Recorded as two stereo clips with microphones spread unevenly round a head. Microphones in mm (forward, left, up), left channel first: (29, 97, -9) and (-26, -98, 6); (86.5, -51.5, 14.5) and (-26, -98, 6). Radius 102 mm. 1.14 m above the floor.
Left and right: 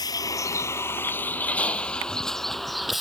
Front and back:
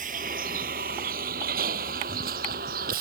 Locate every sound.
0.0 s a vehicle: 145° left; by 3.0 s 165° left